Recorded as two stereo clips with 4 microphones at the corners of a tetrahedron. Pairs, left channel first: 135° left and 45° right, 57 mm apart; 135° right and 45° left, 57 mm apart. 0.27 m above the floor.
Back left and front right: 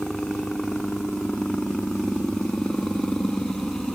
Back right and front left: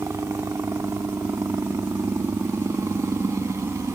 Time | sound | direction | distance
0.0 | a helicopter | 55° left | ?